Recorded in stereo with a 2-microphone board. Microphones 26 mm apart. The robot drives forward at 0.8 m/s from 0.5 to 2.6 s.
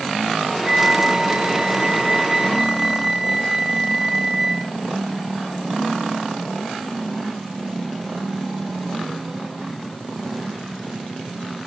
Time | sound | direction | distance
0.7 | a flute | 25° right (ahead or behind) | ?